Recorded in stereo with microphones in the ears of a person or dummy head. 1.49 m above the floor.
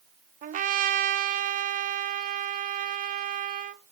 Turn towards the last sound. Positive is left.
turn(degrees=-40)  # may be behind; listen again after turning